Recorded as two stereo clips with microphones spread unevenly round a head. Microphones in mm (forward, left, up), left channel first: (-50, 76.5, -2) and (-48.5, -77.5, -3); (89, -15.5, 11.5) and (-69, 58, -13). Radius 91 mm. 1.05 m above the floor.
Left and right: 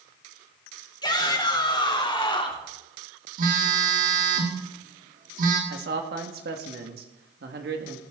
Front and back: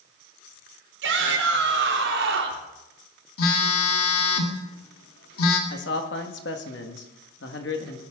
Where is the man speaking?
55° right, 1.7 m.